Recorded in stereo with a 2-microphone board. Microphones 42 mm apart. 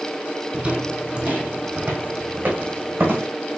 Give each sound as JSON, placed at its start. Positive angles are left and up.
{"t": 0.5, "sound": "footsteps", "side_deg": -25, "distance_m": 1.6}